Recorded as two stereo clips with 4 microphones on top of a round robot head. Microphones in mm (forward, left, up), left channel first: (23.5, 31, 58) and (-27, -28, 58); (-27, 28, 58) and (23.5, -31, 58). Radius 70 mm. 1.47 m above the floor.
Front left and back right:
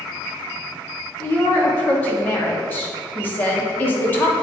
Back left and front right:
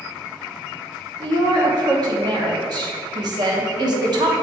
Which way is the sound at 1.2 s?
20° right.